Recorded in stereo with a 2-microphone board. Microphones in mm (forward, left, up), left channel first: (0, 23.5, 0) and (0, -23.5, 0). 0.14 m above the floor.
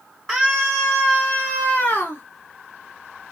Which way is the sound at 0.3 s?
5° right (ahead or behind).